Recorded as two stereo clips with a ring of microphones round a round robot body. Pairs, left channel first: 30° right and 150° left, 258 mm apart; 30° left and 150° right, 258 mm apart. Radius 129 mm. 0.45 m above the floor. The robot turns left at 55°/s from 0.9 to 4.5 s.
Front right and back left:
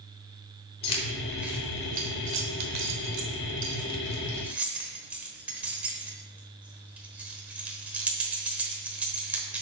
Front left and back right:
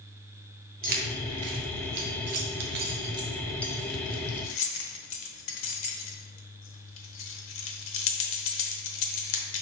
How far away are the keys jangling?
About 1.0 m.